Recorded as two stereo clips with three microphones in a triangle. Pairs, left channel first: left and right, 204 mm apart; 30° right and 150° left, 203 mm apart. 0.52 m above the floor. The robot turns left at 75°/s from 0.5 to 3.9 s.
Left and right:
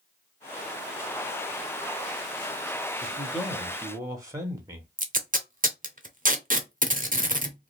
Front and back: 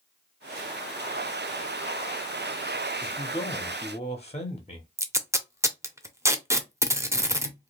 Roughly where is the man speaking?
Ahead left.